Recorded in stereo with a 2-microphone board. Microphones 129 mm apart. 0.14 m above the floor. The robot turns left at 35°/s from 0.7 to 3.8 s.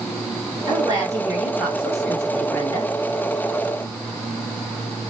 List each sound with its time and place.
0.7 s a woman speaking: 135° right, 2.5 m; by 2.9 s 145° left, 2.5 m